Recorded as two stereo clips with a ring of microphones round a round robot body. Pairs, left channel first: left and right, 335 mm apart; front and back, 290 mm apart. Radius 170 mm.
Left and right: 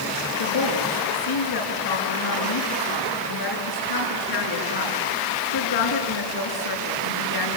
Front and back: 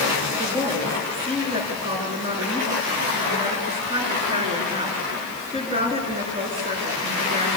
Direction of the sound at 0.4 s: 110° left.